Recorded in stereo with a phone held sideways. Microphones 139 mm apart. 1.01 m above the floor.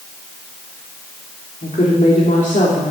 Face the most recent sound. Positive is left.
turn(degrees=65)  # may be behind; listen again after turning